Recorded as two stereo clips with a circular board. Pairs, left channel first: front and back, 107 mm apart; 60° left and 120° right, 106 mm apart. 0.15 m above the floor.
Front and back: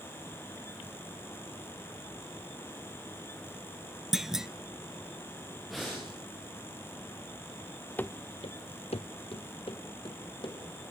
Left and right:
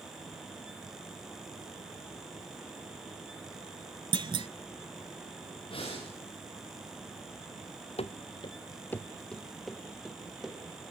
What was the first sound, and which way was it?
A clunk, 95° right.